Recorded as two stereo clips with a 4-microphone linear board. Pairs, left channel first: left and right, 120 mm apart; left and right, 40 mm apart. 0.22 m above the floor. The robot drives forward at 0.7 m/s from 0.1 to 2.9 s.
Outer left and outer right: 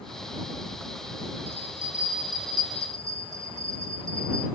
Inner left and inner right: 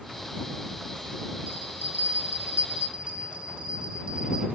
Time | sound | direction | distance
1.5 | a bell | 60° right (ahead or behind) | 1.0 m